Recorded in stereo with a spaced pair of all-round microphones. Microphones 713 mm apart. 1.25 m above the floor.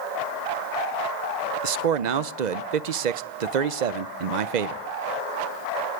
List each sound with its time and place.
1.6 s a man speaking: 75° right (ahead or behind), 0.8 m